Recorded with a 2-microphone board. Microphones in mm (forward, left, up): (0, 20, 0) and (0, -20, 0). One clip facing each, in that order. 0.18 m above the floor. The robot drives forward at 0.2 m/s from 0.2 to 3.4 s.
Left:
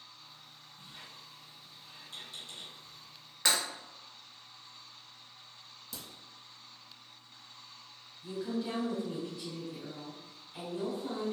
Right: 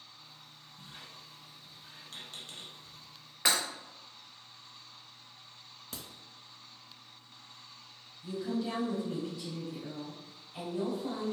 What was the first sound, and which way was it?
A squeak, 65° right (ahead or behind).